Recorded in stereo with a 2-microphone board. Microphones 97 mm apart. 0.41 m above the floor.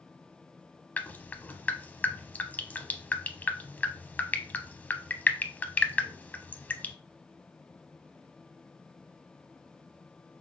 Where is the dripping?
15° left (ahead or behind), 0.6 m.